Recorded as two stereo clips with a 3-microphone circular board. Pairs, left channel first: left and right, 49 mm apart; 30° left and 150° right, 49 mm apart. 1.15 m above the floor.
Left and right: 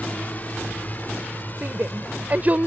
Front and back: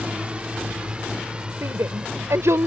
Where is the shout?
145° right.